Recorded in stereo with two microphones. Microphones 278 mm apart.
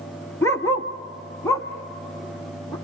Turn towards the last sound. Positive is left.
turn(degrees=10)  # may be behind; listen again after turning